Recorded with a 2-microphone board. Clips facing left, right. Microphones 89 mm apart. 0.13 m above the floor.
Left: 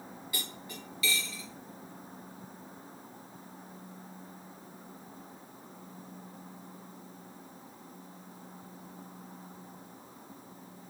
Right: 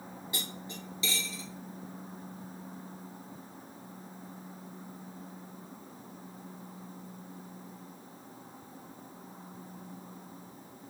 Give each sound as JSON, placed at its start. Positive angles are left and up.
{"t": 0.3, "sound": "cutlery clinking", "side_deg": -30, "distance_m": 1.3}